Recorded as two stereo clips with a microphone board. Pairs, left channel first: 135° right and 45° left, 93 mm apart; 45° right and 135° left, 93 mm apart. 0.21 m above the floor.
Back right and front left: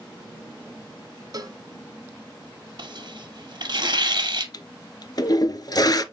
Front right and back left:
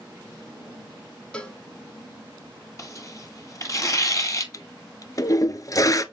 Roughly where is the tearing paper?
Ahead.